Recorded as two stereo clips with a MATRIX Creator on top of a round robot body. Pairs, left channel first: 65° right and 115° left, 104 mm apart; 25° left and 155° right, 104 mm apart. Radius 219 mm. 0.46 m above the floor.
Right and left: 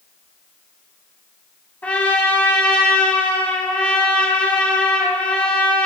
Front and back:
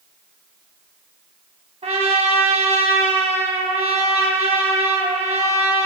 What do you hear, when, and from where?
1.8 s a trumpet: 140° right, 1.5 m